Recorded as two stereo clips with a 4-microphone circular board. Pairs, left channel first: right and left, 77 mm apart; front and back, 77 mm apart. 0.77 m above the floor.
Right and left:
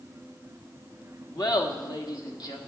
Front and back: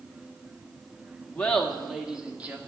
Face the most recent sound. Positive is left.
turn(degrees=-115)